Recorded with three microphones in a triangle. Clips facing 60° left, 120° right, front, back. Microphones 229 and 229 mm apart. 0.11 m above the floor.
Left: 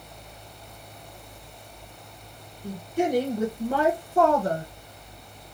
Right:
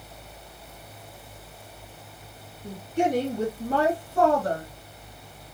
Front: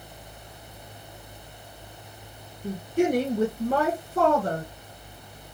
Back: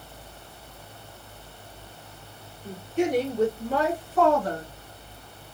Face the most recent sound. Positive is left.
turn(degrees=15)